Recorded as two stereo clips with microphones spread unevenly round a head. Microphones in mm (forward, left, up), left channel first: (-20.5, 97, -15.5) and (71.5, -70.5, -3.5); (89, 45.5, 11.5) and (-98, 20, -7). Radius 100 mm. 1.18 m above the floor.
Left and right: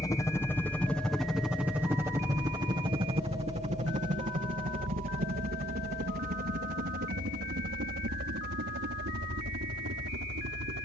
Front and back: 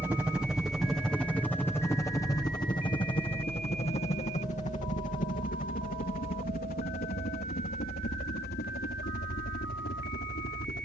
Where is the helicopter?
140° left; by 10.9 s 35° right.